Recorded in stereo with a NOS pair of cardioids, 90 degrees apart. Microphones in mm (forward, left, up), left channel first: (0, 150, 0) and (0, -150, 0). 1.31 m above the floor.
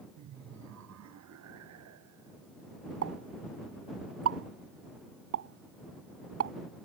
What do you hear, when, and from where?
0.2 s laughter: 70° right
3.0 s a pop: 55° right